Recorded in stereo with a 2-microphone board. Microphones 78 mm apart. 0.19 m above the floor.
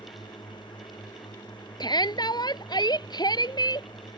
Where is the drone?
85° left.